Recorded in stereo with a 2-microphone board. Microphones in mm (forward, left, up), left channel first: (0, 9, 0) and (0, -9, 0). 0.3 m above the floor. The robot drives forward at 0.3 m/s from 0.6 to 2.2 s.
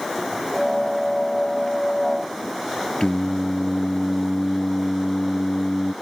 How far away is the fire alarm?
I don't hear a fire alarm.